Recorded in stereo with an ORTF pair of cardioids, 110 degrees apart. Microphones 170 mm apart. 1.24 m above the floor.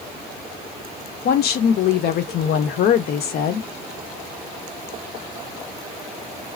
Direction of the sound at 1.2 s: 70° left.